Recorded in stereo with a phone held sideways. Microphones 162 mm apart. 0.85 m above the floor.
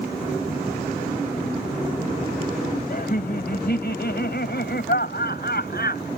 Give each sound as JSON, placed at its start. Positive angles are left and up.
{"t": 2.9, "sound": "laughter", "side_deg": 65}